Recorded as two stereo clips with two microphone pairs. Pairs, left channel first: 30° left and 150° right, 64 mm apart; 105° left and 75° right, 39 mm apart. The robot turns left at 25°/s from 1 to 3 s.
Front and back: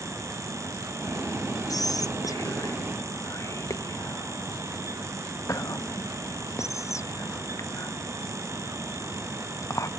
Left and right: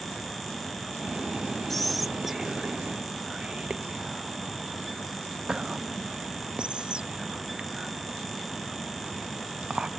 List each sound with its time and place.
1.7 s whispering: 25° left, 0.6 m; by 9.9 s 10° right, 0.6 m